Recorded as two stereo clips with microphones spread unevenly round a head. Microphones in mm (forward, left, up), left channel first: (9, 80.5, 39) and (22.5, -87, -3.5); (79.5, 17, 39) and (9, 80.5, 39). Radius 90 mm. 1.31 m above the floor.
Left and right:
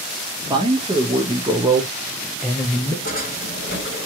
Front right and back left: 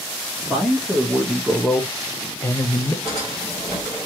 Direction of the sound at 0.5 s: 140° right.